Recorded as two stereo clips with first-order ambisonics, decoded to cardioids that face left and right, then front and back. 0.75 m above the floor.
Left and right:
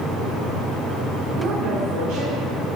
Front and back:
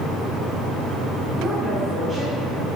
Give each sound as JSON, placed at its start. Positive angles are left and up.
{"t": 1.4, "sound": "a woman speaking", "azimuth_deg": -110, "distance_m": 2.5}